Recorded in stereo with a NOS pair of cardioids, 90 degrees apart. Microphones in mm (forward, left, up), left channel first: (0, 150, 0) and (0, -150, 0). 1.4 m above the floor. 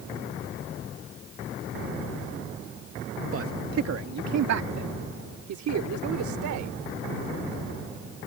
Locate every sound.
3.3 s a man speaking: 50° right; by 6.7 s 70° right